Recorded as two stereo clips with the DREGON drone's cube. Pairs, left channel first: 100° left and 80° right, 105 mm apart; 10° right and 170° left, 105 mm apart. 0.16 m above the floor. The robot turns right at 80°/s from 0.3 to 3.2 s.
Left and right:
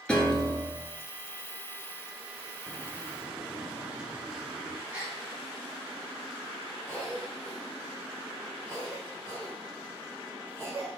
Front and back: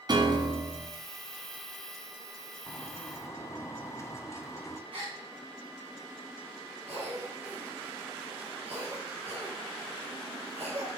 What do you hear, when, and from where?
0.1 s a piano: 175° left, 1.6 m; by 0.9 s 135° right, 1.6 m
2.7 s a bird: 50° right, 1.1 m; by 4.8 s 10° right, 1.1 m
4.9 s a gasp: 155° right, 5 m
6.9 s a cough: 175° left, 4 m